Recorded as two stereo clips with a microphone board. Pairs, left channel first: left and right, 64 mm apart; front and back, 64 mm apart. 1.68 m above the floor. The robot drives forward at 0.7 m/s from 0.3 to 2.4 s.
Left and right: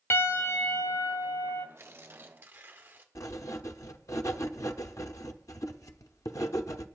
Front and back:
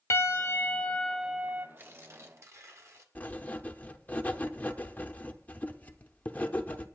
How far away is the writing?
About 0.7 m.